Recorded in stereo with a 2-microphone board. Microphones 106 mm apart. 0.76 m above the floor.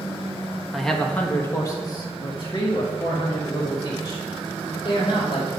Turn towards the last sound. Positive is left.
turn(degrees=55)  # may be behind; listen again after turning